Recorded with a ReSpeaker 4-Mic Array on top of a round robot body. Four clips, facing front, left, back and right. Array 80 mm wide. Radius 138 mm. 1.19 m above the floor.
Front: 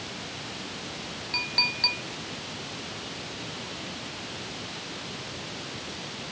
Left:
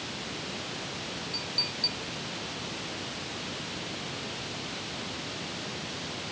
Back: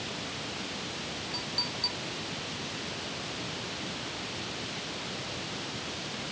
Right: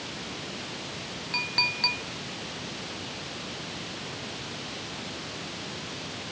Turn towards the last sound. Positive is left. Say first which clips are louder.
# right 5 dB, front 4 dB
turn(degrees=-55)